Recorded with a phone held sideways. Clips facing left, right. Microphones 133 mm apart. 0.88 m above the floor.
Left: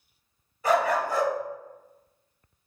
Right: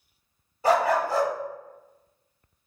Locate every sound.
0.6 s a dog barking: 30° right (ahead or behind), 0.9 m